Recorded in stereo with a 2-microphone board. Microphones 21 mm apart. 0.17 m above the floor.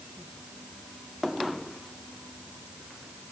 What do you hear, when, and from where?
Only background noise.